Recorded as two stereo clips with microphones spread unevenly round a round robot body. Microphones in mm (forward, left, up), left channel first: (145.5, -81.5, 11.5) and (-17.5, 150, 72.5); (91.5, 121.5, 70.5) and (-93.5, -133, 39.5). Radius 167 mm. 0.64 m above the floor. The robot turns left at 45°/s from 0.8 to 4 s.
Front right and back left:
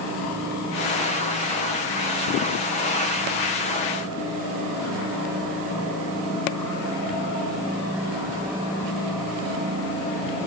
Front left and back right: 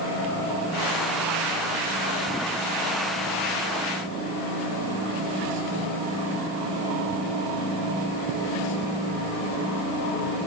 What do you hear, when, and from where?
Only background noise.